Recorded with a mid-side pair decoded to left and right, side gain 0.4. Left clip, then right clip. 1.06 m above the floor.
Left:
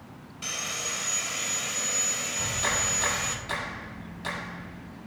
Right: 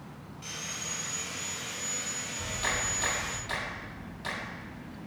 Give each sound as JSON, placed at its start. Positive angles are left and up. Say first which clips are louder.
{"t": 0.4, "sound": "sawing", "louder": "left 6 dB", "azimuth_deg": 60, "distance_m": 3.0}
{"t": 2.4, "sound": "a clap", "louder": "left 2 dB", "azimuth_deg": 20, "distance_m": 7.0}